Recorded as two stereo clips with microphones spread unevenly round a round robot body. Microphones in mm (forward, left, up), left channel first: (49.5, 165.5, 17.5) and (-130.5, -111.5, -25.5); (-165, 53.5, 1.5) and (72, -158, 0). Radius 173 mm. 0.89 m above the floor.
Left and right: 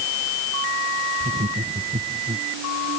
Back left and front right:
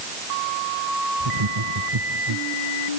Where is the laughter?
50° right.